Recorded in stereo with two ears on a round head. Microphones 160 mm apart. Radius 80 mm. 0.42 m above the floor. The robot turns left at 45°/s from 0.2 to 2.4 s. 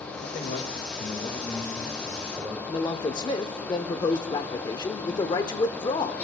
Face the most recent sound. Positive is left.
turn(degrees=25)  # may be behind; listen again after turning